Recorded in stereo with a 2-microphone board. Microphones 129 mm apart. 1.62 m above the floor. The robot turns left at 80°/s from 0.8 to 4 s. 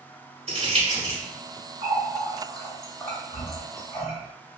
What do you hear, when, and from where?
0.5 s crumpling: 55° right (ahead or behind), 1.5 m; by 1.2 s 60° right (ahead or behind), 1.5 m
1.8 s a running tap: 60° right (ahead or behind), 1.8 m; by 4.1 s 65° left (ahead or behind), 1.8 m